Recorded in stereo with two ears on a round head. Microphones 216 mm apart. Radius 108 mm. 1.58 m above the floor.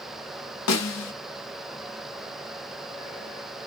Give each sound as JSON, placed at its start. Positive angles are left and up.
{"t": 0.7, "sound": "a snare drum", "side_deg": 70, "distance_m": 0.7}